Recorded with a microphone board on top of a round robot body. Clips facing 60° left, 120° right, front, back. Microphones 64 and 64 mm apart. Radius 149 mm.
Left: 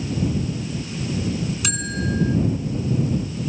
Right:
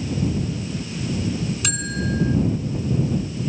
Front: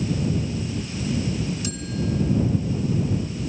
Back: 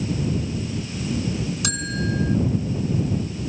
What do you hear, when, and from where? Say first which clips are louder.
1.6 s a bell: even, back 1 dB; 150° left